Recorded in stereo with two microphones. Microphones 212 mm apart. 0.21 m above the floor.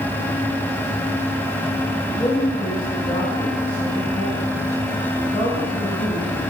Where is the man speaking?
30° left (ahead or behind), 2.5 m.